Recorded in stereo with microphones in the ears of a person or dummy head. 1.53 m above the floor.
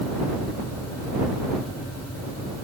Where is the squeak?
I don't hear a squeak.